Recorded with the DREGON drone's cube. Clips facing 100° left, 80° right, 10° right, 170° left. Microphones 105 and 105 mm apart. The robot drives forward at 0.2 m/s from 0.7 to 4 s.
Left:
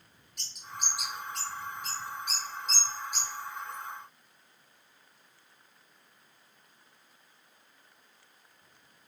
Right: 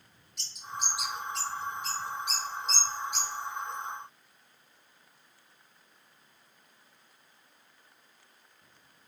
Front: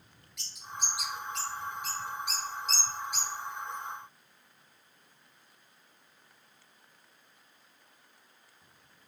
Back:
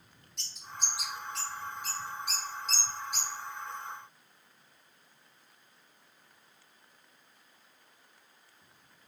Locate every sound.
0.4 s a bird: 115° left, 1.1 m; by 3.3 s 140° left, 1.3 m